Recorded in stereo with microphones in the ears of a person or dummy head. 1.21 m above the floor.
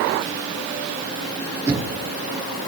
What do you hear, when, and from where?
1.7 s knocking: 15° right (ahead or behind), 10 m